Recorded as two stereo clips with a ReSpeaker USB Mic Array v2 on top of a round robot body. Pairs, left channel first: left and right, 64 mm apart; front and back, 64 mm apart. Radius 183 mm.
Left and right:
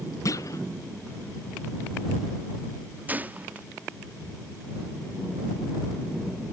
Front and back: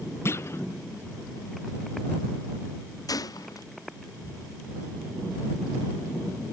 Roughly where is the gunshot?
Ahead right.